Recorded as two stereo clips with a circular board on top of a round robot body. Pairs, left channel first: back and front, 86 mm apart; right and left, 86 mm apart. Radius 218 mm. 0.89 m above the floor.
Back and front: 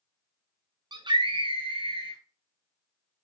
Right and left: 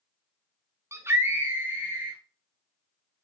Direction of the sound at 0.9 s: 30° left.